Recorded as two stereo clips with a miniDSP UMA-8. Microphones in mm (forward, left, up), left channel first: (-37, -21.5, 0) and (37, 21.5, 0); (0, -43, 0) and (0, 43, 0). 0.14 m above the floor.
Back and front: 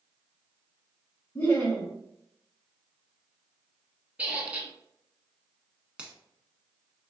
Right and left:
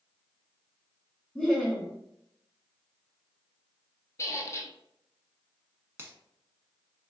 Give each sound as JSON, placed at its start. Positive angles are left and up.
{"t": 1.4, "sound": "laughter", "azimuth_deg": -155, "distance_m": 1.2}
{"t": 4.2, "sound": "a squeak", "azimuth_deg": -45, "distance_m": 0.8}
{"t": 6.0, "sound": "a finger snap", "azimuth_deg": 90, "distance_m": 0.9}